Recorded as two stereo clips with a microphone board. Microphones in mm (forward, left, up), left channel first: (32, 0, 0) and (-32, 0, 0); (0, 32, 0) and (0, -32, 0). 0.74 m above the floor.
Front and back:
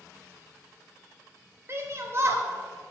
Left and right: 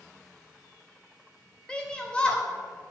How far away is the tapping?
I don't hear tapping.